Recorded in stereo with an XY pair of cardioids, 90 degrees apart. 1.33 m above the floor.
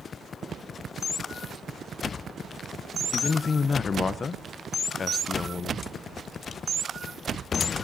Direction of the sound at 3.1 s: 45° left.